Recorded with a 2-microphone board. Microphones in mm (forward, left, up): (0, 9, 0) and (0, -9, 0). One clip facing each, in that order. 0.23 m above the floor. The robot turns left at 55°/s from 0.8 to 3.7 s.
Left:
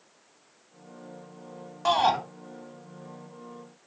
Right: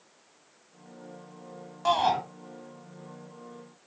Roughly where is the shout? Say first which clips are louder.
Left 2 dB; centre.